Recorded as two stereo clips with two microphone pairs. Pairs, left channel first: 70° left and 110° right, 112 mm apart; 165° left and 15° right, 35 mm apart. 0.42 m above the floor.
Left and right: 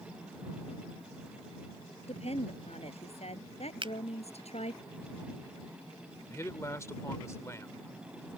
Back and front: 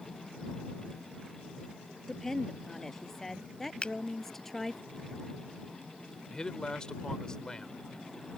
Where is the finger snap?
140° right.